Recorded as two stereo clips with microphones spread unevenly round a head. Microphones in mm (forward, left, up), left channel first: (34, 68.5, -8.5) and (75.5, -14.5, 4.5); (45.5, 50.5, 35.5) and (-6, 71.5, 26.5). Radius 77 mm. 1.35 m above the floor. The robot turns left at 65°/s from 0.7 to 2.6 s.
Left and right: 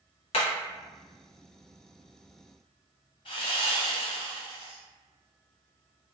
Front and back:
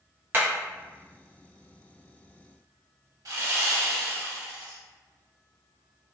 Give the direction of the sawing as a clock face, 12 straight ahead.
6 o'clock.